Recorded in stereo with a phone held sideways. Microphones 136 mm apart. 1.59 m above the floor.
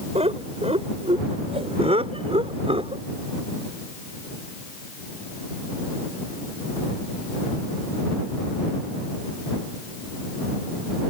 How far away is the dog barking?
I don't hear a dog barking.